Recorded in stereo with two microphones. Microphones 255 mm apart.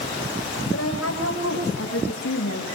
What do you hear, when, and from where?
0.7 s a woman speaking: 60° left (ahead or behind), 6 m; by 2.7 s 65° left (ahead or behind), 8.5 m